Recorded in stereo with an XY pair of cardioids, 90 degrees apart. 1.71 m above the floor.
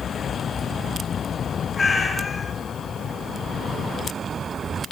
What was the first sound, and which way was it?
A cat meowing, 30° left.